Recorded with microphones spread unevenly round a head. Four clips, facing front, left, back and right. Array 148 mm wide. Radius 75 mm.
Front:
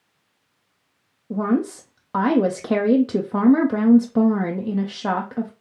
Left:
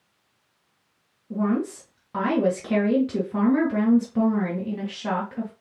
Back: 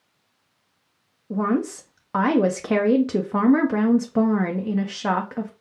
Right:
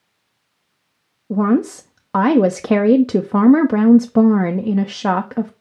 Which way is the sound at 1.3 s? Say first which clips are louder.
Right 8 dB, front 1 dB; 90° right.